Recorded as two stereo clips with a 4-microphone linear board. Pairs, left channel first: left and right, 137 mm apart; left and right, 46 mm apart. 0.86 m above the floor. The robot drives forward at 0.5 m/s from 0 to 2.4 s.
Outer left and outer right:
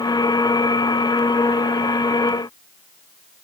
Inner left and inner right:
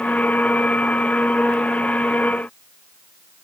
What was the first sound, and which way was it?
Only background noise.